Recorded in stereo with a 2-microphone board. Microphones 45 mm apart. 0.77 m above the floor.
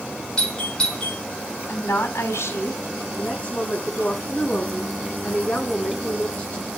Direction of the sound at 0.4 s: 20° left (ahead or behind).